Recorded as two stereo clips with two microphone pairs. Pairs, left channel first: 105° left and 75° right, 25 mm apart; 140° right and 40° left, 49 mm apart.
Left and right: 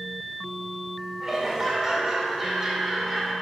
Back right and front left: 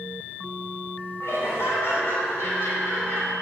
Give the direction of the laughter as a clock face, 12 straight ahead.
5 o'clock.